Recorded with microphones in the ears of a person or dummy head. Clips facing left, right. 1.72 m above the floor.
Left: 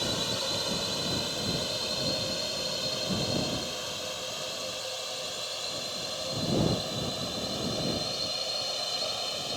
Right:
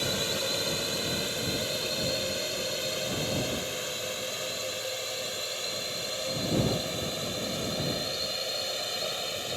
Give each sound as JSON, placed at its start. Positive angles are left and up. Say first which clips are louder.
{"t": 0.0, "sound": "a drone", "louder": "right 2 dB", "side_deg": -30}